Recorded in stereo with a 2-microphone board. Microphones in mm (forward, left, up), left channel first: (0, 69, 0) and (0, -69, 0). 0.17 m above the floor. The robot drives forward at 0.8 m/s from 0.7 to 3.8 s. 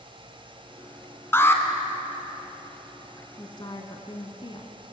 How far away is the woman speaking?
About 2 m.